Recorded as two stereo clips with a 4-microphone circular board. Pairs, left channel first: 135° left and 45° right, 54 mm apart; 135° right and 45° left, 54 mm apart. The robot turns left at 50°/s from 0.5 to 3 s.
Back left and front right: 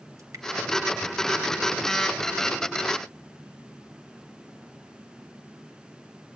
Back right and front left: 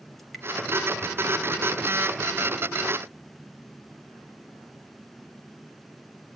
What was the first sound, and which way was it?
Dripping, 50° right.